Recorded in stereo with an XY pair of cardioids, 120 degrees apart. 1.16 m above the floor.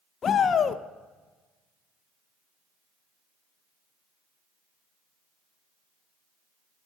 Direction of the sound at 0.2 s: 40° left.